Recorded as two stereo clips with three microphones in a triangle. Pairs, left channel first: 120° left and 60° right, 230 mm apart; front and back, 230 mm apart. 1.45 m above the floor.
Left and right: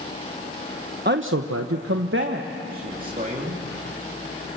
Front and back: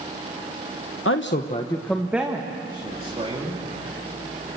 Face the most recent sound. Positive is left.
turn(degrees=-120)